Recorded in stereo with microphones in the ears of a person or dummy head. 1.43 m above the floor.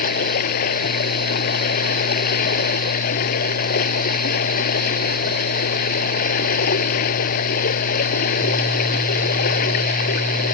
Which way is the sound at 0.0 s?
50° left (ahead or behind).